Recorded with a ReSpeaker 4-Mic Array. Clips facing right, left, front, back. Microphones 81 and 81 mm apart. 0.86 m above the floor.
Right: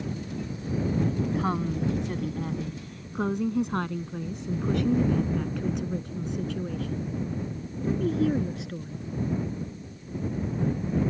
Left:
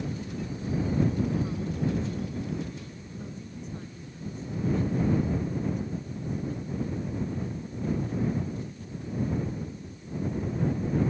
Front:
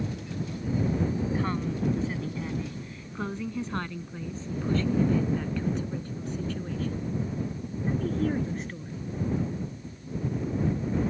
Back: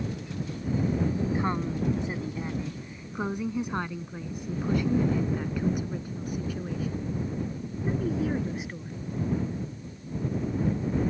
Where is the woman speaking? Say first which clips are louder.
Right 3 dB, back 1 dB; 110° right; by 9.0 s 100° right.